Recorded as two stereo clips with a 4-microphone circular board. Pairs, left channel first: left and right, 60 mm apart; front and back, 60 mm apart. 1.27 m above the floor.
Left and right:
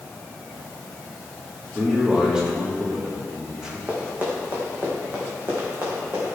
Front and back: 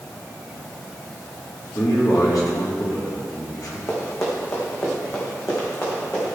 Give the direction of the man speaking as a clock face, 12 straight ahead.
12 o'clock.